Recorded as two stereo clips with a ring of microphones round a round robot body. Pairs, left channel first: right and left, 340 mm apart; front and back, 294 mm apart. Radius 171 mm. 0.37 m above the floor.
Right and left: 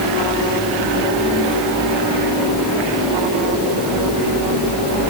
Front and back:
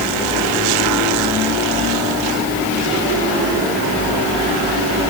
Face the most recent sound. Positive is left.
No sound to turn to.